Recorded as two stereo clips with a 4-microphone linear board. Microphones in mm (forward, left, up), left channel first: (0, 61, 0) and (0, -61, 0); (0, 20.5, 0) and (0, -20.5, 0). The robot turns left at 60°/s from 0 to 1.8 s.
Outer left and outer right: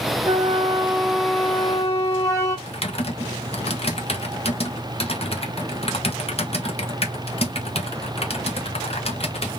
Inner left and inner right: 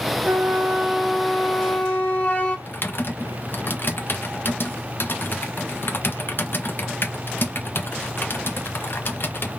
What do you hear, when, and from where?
0.2 s a flute: 115° right, 1.5 m; by 2.6 s 150° left, 1.5 m
2.7 s typing on a keyboard: 50° left (ahead or behind), 1.2 m